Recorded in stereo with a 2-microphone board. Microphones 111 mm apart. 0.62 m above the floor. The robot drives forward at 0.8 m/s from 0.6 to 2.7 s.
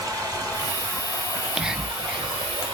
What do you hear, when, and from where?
0.0 s running water: 35° right (ahead or behind), 3.5 m; by 2.8 s 55° right (ahead or behind), 2 m
1.3 s whispering: 5° right (ahead or behind), 0.5 m